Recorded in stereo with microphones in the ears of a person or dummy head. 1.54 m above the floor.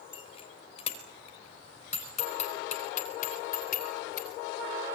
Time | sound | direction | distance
0.1 | a bicycle bell | 40° left (ahead or behind) | 4.5 m